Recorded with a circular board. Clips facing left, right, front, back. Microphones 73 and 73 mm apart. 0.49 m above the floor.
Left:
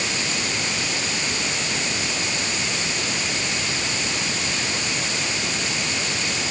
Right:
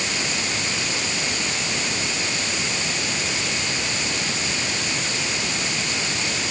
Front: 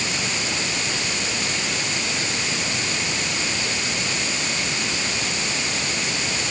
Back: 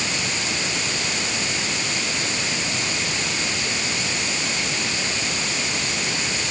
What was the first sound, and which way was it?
Only background noise.